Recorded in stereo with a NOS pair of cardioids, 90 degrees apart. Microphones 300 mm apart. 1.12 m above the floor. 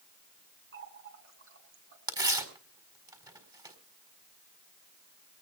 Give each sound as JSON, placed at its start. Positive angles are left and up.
{"t": 0.7, "sound": "a running tap", "azimuth_deg": -50, "distance_m": 5.0}
{"t": 2.1, "sound": "tearing paper", "azimuth_deg": -15, "distance_m": 4.0}